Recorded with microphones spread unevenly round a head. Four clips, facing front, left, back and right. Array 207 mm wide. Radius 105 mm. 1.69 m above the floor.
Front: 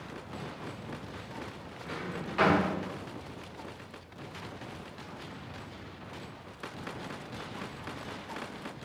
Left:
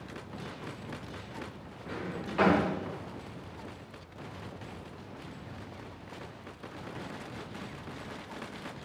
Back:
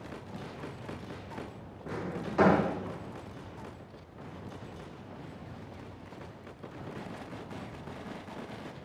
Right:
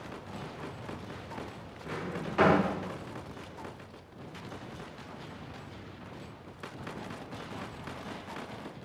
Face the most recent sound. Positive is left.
turn(degrees=-170)